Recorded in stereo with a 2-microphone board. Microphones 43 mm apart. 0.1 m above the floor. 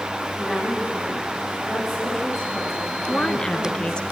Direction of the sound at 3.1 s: 25° left (ahead or behind).